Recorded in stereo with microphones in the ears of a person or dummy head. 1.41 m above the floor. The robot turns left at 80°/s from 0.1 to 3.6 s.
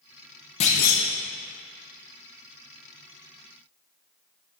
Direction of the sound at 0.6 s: 145° left.